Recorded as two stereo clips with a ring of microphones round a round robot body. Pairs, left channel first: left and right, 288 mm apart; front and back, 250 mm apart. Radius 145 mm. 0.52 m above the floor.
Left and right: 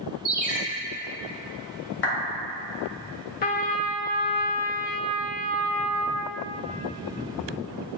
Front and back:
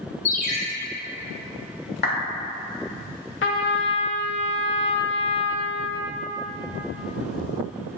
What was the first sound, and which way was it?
A ringtone, 5° right.